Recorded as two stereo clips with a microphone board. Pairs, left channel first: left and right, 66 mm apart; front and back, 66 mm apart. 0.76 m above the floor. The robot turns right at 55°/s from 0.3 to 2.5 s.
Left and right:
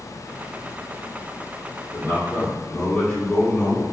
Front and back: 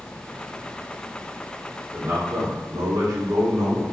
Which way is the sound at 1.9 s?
130° left.